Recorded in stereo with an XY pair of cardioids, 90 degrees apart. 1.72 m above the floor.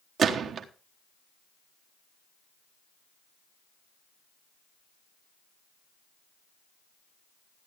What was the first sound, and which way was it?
A gunshot, 65° right.